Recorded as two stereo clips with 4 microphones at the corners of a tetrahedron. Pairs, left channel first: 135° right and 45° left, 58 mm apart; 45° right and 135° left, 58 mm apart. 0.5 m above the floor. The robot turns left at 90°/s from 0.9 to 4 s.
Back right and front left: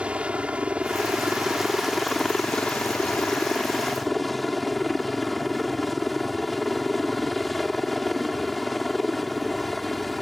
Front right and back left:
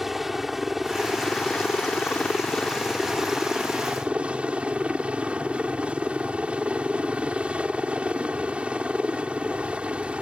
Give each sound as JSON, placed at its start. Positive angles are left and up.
{"t": 0.0, "sound": "a helicopter", "azimuth_deg": 55}